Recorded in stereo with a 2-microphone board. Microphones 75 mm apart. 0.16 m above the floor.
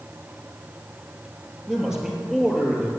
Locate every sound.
1.7 s a man speaking: 10° right (ahead or behind), 3.5 m; by 2.9 s 5° right (ahead or behind), 3 m